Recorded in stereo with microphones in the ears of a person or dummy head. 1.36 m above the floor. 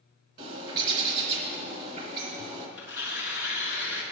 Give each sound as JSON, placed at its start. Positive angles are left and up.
{"t": 0.4, "sound": "a bird", "side_deg": -40, "distance_m": 3.5}
{"t": 2.8, "sound": "tearing paper", "side_deg": -15, "distance_m": 3.5}